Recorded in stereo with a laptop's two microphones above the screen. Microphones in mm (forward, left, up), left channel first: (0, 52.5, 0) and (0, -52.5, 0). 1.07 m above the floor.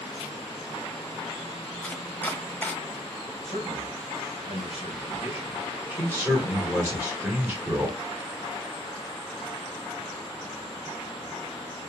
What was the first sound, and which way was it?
Chopping, 15° left (ahead or behind).